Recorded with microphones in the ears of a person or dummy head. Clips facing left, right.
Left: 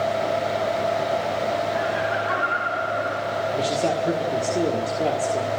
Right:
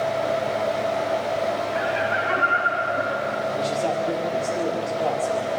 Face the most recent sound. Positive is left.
turn(degrees=30)  # may be behind; listen again after turning